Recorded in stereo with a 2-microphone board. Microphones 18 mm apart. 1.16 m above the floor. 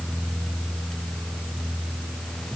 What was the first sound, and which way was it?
Only background noise.